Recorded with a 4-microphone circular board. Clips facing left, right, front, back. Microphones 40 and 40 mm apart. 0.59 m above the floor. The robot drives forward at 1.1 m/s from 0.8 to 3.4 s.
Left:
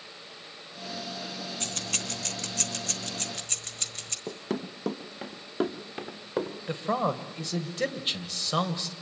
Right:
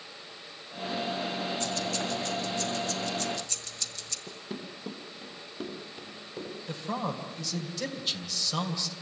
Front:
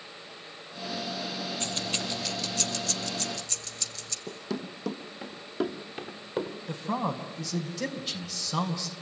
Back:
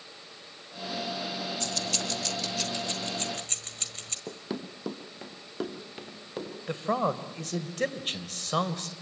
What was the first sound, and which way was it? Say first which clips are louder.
Keys jangling: right 4 dB, even; 55° left.